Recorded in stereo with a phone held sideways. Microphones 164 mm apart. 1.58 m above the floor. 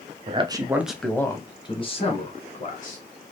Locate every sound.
0.3 s a man speaking: 35° right (ahead or behind), 0.7 m; by 3.0 s 50° left (ahead or behind), 1.6 m